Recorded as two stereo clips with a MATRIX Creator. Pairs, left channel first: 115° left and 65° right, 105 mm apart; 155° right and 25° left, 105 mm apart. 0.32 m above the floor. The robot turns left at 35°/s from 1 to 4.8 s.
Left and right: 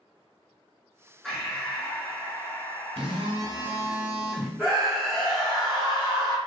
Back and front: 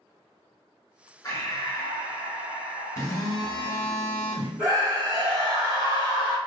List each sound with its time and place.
1.2 s breathing: 170° right, 1.1 m; by 4.0 s 95° left, 1.1 m
3.0 s a phone buzzing: 100° right, 0.7 m; by 4.5 s 155° right, 0.7 m
4.6 s a scream: 35° left, 2.0 m; by 6.4 s 30° left, 2.0 m